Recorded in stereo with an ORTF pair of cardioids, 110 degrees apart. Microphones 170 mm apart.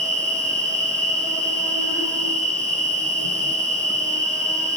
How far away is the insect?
About 0.9 m.